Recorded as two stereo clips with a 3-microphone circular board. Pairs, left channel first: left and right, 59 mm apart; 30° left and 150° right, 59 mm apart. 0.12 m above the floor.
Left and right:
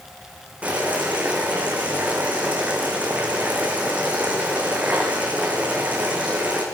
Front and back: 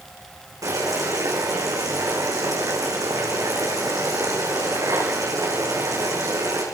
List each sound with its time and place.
0.6 s boiling: 155° right, 7 m